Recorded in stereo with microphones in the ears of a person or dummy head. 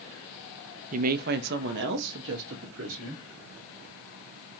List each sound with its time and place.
0.9 s a woman speaking: 45° right (ahead or behind), 0.6 m; by 3.2 s 80° right, 1.7 m